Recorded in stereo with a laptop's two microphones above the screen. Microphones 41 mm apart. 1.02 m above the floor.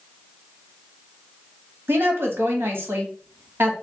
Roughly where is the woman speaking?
Right.